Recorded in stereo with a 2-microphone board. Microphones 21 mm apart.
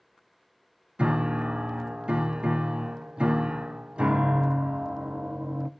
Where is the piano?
55° right (ahead or behind), 0.6 m.